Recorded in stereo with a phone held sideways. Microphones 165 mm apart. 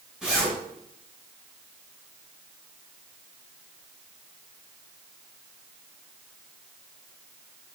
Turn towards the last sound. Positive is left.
turn(degrees=-5)  # may be behind; listen again after turning